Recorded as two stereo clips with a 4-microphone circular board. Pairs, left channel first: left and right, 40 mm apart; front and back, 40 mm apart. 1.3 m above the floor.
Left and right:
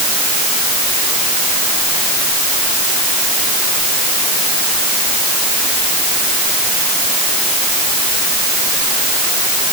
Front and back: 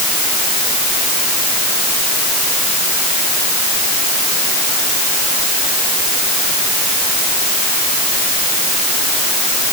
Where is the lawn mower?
No lawn mower in this recording.